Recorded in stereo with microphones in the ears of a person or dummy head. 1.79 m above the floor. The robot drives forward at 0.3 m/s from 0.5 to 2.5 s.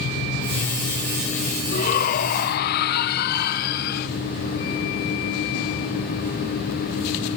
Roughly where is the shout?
Left.